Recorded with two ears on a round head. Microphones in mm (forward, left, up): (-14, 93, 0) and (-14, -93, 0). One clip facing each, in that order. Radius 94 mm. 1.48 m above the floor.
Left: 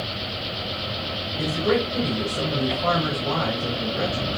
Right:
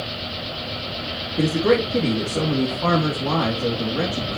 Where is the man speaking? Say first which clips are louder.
Right 5 dB; 60° right (ahead or behind), 2.5 m.